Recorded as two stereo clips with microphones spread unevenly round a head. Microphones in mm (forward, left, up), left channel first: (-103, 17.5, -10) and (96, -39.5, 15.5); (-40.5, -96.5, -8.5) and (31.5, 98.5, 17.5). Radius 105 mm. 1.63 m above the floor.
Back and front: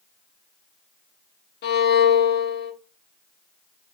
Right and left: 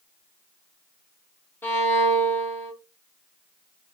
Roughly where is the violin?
Behind.